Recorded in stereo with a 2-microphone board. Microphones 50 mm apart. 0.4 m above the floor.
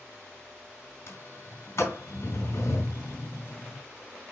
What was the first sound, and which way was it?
A sliding door, 55° left (ahead or behind).